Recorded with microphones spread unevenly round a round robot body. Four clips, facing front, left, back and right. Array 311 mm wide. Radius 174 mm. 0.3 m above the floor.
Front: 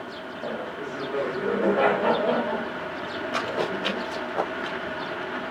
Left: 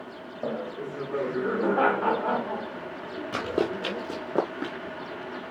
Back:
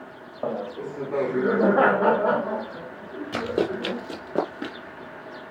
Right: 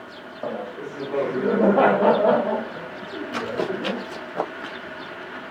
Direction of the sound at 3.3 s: 130° left.